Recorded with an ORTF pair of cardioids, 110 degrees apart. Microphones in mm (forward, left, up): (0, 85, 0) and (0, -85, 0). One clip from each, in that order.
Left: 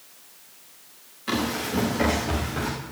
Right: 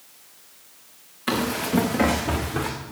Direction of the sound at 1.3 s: 55° right.